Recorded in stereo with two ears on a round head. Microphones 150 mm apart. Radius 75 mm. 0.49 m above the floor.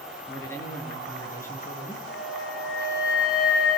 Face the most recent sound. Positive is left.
turn(degrees=65)  # may be behind; listen again after turning